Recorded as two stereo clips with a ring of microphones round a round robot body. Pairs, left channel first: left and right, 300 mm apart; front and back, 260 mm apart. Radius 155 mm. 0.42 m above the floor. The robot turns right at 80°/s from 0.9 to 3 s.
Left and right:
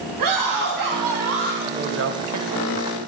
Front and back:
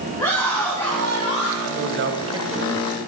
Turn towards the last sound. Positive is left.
turn(degrees=-55)